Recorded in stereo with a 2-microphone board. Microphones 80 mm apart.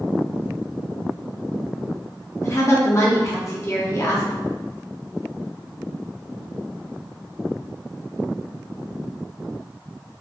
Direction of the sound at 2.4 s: 40° left (ahead or behind).